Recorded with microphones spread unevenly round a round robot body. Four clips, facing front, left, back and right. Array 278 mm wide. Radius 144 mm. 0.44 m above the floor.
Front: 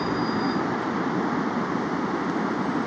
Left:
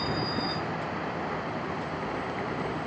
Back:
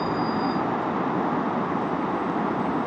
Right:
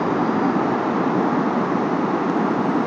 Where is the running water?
90° right.